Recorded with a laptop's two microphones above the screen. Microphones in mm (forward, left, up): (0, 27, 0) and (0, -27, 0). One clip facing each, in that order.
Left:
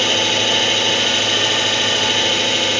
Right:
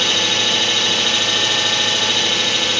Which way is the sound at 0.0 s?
35° left (ahead or behind).